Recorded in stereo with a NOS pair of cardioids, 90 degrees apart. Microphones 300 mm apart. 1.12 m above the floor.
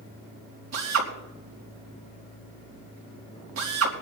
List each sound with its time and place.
0.7 s a drill: 55° right, 4.5 m